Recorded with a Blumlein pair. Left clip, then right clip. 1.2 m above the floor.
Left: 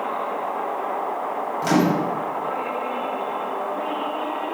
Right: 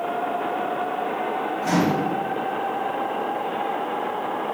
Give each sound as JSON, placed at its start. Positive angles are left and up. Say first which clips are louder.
{"t": 1.6, "sound": "a microwave", "louder": "left 3 dB", "azimuth_deg": 35, "distance_m": 0.6}